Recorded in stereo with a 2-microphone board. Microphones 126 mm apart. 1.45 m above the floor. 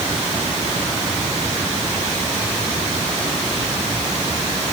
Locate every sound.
Only background noise.